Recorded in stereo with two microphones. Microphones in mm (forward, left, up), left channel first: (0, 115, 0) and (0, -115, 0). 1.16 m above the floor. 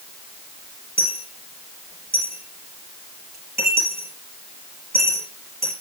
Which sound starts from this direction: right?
A dropped coin, at 1.0 s.